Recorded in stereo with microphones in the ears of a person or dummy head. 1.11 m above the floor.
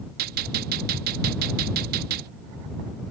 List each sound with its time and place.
0.2 s a gunshot: 50° right (ahead or behind)